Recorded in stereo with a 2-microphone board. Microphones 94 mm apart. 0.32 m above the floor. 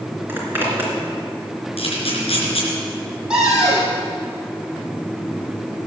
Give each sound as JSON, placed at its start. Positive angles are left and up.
{"t": 0.3, "sound": "a zipper", "side_deg": -20, "distance_m": 3.5}
{"t": 1.8, "sound": "a camera shutter", "side_deg": 75, "distance_m": 4.0}
{"t": 3.3, "sound": "a cupboard door", "side_deg": -10, "distance_m": 4.5}